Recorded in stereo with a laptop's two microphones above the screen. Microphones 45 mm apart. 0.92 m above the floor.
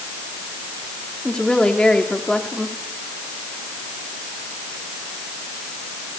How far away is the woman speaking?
About 2.5 m.